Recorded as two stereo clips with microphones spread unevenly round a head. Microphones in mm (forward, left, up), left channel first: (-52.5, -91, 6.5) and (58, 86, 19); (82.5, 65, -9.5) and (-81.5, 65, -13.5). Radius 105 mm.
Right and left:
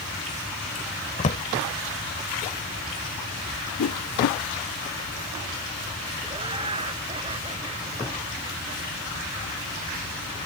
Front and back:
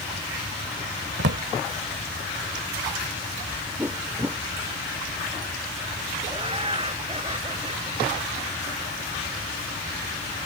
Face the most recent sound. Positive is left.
turn(degrees=125)